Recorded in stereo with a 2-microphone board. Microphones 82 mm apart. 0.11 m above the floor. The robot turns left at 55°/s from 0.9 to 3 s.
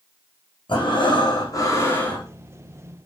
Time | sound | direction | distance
0.7 | breathing | 85° left | 6 m